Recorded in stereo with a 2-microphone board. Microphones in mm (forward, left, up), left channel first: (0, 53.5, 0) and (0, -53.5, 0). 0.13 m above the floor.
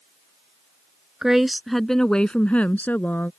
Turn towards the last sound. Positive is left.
turn(degrees=15)  # may be behind; listen again after turning